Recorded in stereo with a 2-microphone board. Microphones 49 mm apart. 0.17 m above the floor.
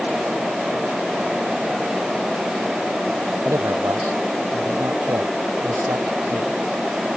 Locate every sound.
3.5 s a man speaking: 75° right (ahead or behind)